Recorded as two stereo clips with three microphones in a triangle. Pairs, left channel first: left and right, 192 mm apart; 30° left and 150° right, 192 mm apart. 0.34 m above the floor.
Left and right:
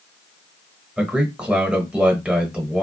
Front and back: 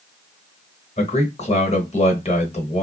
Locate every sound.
1.0 s a man speaking: 10° right, 1.1 m